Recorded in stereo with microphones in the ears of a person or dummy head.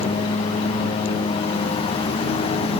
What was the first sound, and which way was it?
A lawn mower, 25° left (ahead or behind).